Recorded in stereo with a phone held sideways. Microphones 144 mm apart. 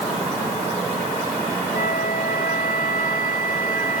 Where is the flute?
80° left.